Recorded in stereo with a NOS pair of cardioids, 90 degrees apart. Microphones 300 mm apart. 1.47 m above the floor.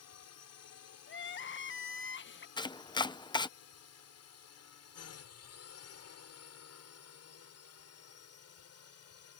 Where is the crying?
40° left.